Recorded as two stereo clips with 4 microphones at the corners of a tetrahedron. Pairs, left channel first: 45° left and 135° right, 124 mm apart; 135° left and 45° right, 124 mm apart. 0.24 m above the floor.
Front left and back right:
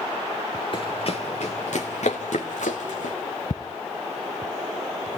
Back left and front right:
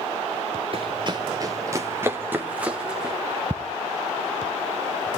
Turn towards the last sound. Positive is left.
turn(degrees=35)